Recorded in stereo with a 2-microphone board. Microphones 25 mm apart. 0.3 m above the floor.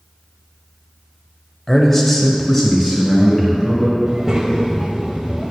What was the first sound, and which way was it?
A man speaking, 15° left (ahead or behind).